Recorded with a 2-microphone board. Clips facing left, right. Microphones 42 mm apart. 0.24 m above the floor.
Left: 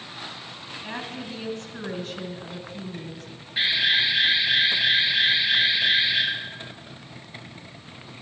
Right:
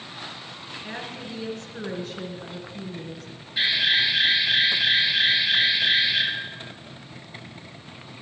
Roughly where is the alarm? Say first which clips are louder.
Even; left.